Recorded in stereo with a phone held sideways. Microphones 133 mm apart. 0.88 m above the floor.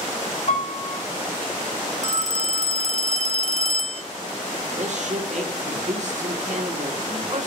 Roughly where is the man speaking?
Right.